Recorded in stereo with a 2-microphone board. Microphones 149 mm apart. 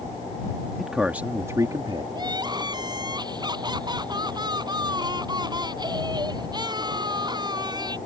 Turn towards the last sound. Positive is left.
turn(degrees=-30)  # may be behind; listen again after turning